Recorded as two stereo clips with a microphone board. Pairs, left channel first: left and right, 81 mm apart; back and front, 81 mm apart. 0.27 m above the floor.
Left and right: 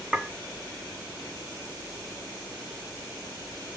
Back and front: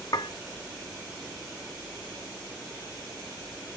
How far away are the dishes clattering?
About 1.0 m.